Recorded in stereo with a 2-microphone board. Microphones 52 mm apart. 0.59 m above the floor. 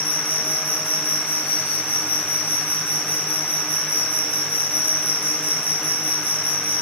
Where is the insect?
45° left (ahead or behind), 3 m.